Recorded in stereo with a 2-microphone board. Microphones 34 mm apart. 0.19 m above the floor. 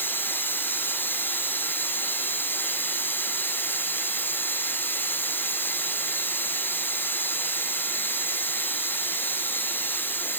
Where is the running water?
85° left, 0.9 m.